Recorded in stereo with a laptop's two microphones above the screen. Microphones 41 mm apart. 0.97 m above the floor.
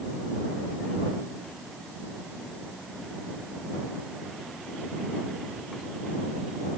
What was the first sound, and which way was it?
Only background noise.